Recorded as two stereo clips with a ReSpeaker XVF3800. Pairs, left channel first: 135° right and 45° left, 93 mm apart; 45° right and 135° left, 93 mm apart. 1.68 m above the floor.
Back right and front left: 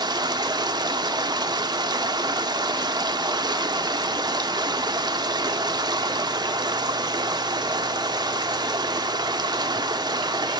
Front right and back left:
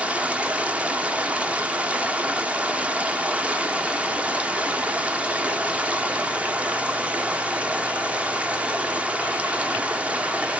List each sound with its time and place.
0.0 s running water: 65° left, 0.8 m